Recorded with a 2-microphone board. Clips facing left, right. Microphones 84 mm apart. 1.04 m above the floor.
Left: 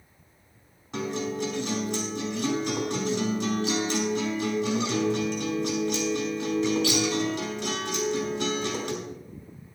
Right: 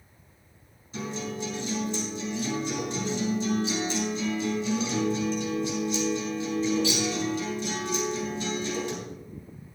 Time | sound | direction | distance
0.9 | a guitar | 75° left (ahead or behind) | 4.5 m